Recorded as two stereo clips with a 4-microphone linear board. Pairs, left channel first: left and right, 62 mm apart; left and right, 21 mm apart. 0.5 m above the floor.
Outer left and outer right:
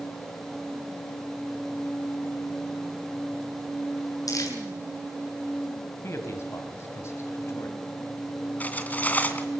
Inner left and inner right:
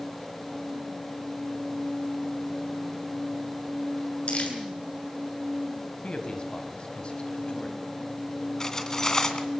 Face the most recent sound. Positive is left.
turn(degrees=25)  # may be behind; listen again after turning